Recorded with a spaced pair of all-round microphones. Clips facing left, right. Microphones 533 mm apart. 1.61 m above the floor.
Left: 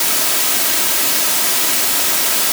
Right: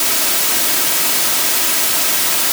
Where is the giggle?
I don't hear a giggle.